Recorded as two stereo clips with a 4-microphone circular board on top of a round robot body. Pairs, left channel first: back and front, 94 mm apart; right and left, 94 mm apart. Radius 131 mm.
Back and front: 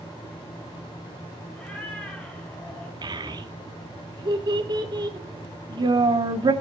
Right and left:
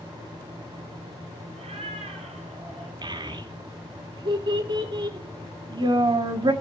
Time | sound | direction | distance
1.5 | a cat meowing | 105° left | 9.5 m
3.0 | a child speaking | 45° left | 2 m